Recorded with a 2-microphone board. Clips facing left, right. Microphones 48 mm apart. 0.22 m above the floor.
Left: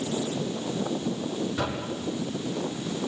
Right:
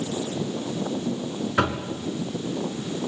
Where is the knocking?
60° right (ahead or behind), 2.5 m.